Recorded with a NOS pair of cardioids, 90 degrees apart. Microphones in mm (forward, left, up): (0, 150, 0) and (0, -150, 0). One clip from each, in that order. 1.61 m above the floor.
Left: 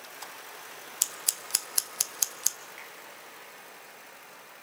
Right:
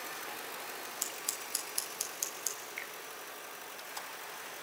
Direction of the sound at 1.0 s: 60° left.